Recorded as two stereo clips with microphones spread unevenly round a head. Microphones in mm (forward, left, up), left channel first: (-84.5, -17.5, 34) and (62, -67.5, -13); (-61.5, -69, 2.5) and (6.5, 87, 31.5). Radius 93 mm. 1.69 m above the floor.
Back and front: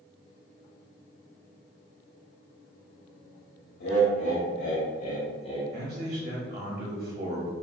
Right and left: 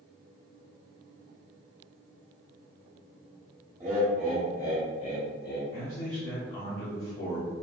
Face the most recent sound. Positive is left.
turn(degrees=-60)